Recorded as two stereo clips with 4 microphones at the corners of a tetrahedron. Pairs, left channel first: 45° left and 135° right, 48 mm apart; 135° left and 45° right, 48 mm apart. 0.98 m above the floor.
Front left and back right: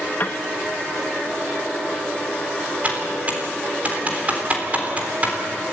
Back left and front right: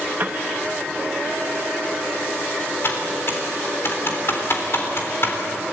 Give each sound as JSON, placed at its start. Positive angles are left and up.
{"t": 0.2, "sound": "a piano", "azimuth_deg": 0, "distance_m": 0.6}
{"t": 2.8, "sound": "typing on a keyboard", "azimuth_deg": 170, "distance_m": 3.5}